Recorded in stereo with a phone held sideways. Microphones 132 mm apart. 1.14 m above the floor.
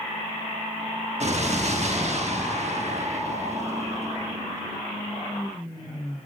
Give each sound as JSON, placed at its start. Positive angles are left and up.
{"t": 1.2, "sound": "an explosion", "side_deg": -55, "distance_m": 1.1}